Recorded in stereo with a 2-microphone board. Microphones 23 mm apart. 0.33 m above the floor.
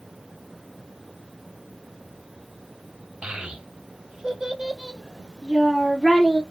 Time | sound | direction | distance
3.2 | a child speaking | 60° right (ahead or behind) | 0.8 m